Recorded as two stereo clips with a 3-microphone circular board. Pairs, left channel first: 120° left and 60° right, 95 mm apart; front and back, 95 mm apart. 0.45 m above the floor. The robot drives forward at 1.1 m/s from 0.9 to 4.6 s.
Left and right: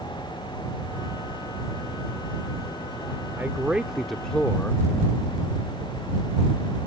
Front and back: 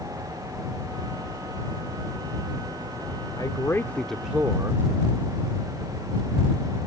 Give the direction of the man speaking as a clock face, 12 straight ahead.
12 o'clock.